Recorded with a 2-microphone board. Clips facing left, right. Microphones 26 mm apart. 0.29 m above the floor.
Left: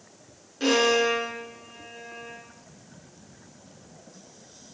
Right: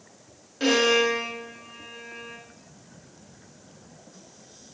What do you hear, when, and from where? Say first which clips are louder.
0.6 s a violin: right 1 dB; 10° right (ahead or behind), 4 m